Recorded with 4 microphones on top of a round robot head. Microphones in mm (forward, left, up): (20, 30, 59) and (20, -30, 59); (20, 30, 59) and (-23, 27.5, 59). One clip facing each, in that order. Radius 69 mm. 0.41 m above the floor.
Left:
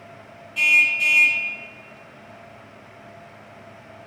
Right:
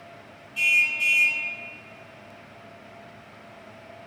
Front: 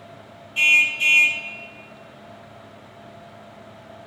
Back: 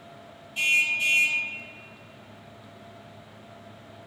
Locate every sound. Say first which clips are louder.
0.6 s a car horn: left 4 dB, front 6 dB; 55° left, 2 m